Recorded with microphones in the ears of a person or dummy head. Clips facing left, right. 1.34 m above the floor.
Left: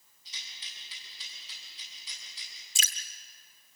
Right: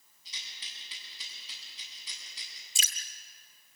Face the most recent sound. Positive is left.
turn(degrees=35)  # may be behind; listen again after turning